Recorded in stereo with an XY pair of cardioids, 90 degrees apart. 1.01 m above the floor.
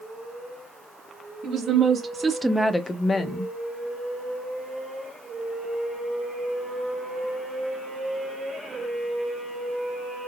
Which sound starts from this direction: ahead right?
A woman speaking, at 1.4 s.